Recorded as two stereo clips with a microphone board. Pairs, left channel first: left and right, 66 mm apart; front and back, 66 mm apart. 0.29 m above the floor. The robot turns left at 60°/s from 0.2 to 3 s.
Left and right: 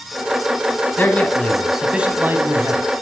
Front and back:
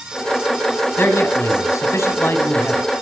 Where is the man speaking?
40° left, 2.5 m; by 2.8 s 70° right, 2.5 m.